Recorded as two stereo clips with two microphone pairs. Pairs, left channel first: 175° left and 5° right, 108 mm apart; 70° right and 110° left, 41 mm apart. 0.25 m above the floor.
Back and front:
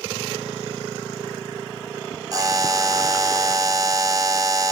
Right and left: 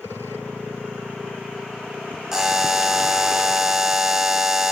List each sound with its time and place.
2.3 s a buzzer: 40° left, 1.0 m